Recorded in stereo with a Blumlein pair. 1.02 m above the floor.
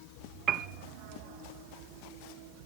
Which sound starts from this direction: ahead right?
A piano, at 0.5 s.